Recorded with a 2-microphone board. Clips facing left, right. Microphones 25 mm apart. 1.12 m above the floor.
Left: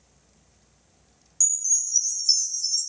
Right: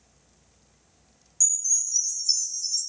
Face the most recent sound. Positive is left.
turn(degrees=35)  # may be behind; listen again after turning